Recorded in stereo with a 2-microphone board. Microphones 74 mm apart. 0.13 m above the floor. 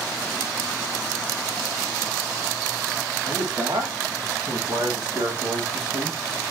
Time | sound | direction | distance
3.2 | a man speaking | 80° right | 7.5 m